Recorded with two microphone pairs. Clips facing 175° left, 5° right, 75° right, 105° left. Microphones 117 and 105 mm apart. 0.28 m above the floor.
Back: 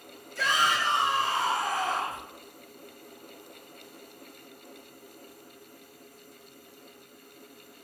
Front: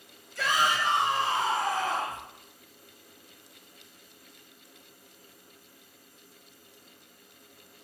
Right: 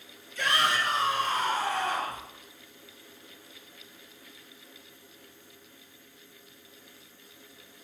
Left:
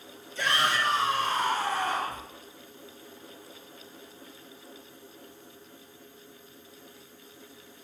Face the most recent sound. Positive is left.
turn(degrees=50)